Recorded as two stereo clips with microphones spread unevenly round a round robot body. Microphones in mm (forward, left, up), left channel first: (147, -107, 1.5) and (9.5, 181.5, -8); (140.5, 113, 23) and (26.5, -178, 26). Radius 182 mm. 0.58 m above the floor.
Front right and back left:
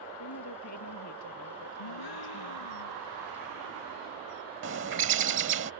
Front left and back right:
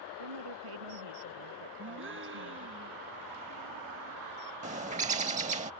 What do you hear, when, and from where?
0.2 s a woman speaking: 115° right
1.8 s a gasp: 60° right
4.6 s a bird: 175° left